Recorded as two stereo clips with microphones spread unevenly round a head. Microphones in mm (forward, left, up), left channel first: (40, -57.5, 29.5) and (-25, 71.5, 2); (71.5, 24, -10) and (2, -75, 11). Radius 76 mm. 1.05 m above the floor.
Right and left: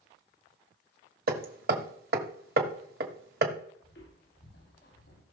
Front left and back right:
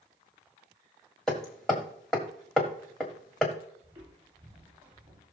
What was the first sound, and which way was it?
Hammering, 145° left.